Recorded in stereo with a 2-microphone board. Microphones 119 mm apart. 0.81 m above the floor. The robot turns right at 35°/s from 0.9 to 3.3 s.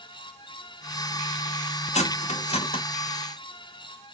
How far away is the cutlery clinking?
About 0.5 m.